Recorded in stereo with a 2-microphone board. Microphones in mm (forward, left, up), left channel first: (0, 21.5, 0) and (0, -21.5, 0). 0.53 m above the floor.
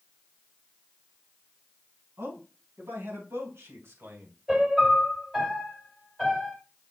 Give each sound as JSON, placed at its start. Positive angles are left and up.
{"t": 2.2, "sound": "a man speaking", "side_deg": -80, "distance_m": 4.5}
{"t": 4.5, "sound": "a piano", "side_deg": -10, "distance_m": 2.5}